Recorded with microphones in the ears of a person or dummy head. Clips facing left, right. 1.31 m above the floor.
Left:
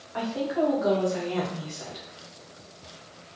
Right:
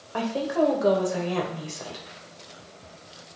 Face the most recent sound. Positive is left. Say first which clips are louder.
# right 2 dB
turn(degrees=-55)  # may be behind; listen again after turning